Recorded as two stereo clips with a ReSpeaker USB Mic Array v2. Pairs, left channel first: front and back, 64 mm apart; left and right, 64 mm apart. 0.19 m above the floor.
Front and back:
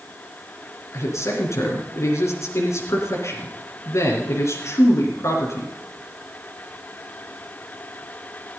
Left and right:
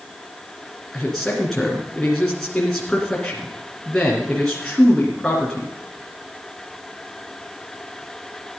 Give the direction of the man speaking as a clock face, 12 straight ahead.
12 o'clock.